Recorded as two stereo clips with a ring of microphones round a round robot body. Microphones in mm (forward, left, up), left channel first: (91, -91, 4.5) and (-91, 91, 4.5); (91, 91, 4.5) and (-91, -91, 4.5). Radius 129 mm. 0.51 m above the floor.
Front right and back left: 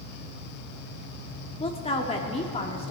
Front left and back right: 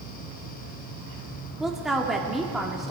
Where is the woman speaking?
50° right, 1.2 m.